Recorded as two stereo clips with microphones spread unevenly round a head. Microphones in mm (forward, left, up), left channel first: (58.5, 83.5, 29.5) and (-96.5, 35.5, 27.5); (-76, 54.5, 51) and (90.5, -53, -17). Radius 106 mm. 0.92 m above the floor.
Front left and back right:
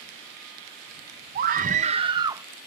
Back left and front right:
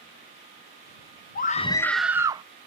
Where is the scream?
160° right; by 2.4 s 90° right.